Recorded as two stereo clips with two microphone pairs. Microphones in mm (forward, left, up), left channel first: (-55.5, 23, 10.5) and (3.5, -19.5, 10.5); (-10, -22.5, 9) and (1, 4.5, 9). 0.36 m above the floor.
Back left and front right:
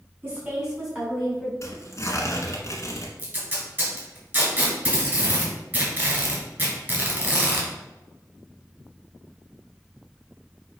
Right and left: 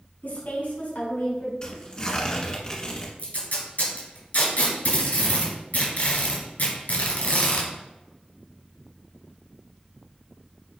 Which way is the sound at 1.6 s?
170° right.